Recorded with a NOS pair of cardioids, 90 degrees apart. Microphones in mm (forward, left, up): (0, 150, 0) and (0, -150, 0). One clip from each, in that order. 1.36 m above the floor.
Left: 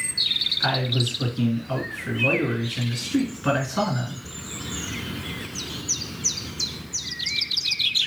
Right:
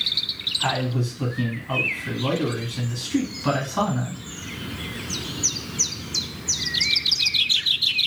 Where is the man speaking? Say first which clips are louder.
Left 1 dB; 5° right, 1.6 m.